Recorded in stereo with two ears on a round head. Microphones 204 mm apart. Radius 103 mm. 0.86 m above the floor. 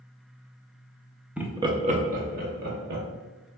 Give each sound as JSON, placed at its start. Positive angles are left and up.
{"t": 1.4, "sound": "laughter", "side_deg": -5, "distance_m": 0.6}